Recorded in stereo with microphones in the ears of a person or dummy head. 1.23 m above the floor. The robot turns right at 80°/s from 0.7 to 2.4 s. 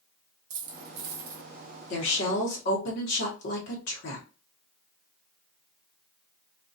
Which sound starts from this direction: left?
A woman speaking, at 1.9 s.